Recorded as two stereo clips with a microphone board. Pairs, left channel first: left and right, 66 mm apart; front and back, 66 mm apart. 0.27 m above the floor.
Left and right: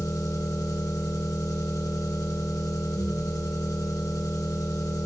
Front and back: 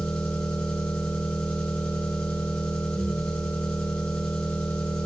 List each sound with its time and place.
0.0 s an engine running: 75° left, 2.5 m